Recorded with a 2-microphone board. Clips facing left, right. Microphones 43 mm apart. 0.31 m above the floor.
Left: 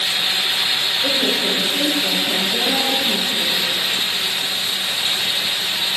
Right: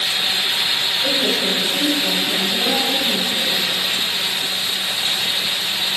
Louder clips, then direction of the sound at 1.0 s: Even; 30° left (ahead or behind).